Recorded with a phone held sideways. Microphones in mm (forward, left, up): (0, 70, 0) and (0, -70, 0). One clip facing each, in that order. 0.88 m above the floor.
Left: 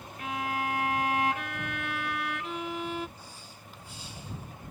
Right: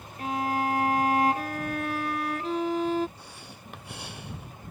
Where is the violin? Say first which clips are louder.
Right 5 dB; 35° right (ahead or behind).